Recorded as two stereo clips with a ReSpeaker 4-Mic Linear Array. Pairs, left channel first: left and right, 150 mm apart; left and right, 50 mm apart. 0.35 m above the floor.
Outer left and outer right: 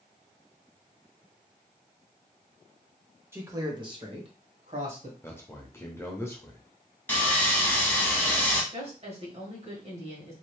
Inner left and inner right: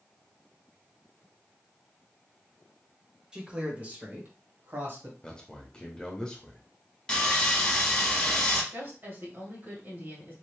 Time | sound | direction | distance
3.3 | a man speaking | 15° right (ahead or behind) | 1.1 m
5.2 | a man speaking | 15° left (ahead or behind) | 0.9 m
7.1 | sawing | 15° left (ahead or behind) | 1.0 m
8.7 | a woman speaking | 45° right (ahead or behind) | 1.6 m